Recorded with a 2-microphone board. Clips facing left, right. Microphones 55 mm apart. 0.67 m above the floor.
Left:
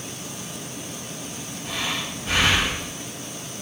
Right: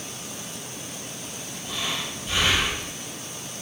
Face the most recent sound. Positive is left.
turn(degrees=65)  # may be behind; listen again after turning